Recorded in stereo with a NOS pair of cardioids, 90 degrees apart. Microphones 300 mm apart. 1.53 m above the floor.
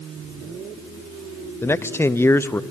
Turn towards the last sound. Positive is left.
turn(degrees=10)